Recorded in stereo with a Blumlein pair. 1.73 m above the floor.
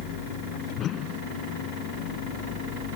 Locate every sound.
0.8 s a whoosh: 30° left